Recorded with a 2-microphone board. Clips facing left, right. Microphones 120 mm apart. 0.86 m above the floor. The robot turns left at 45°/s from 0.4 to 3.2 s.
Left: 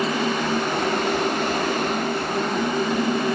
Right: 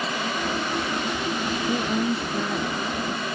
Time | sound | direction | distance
1.7 | a woman speaking | 150° right | ?